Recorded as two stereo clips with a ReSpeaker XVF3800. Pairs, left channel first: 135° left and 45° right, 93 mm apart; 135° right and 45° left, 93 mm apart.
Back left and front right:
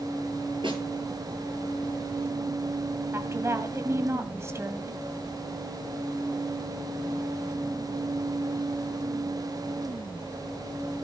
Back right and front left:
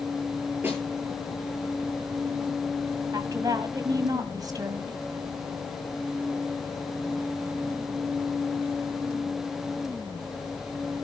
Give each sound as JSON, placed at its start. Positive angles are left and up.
{"t": 0.6, "sound": "a snare drum", "azimuth_deg": -25, "distance_m": 9.5}
{"t": 3.1, "sound": "a woman speaking", "azimuth_deg": 10, "distance_m": 1.8}